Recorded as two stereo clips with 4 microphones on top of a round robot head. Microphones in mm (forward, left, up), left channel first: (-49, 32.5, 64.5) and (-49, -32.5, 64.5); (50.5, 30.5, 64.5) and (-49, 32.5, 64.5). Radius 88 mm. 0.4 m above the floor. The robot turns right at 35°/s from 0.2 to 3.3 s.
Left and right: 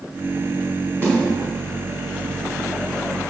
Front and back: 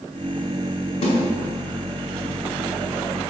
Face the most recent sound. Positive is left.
turn(degrees=50)